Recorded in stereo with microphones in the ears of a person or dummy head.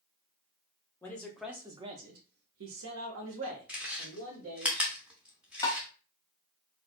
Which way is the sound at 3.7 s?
5° right (ahead or behind).